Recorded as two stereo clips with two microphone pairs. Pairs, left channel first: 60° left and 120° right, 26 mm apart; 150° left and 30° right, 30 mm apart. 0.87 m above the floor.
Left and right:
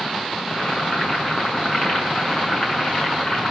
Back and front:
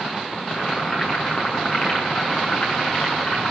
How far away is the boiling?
About 10 m.